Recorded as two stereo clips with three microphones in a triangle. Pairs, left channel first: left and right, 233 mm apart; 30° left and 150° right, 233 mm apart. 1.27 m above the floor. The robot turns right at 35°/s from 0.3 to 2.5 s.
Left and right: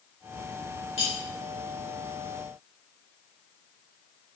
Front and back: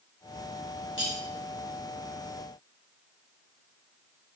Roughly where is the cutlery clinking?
Ahead left.